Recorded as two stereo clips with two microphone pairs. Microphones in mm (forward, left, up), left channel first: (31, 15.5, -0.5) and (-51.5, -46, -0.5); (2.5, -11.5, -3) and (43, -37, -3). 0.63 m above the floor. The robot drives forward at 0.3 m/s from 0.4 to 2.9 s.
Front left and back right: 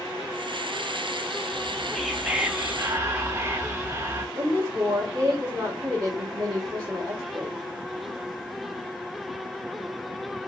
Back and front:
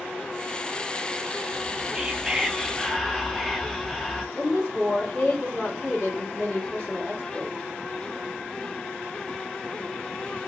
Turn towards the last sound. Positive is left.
turn(degrees=-160)